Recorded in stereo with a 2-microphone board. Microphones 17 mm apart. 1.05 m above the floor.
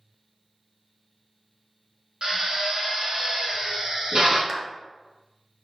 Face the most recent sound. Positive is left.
turn(degrees=-15)  # may be behind; listen again after turning